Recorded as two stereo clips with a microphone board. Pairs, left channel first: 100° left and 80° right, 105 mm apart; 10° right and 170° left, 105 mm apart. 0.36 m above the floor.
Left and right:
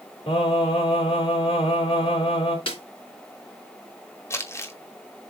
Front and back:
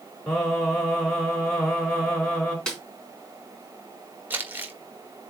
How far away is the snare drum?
About 3.5 m.